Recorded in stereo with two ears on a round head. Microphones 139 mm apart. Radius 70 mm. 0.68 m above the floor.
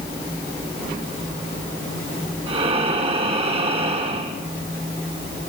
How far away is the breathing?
About 4 m.